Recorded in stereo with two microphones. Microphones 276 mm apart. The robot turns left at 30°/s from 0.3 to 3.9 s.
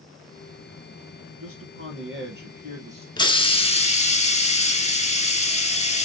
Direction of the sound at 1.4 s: 105° right.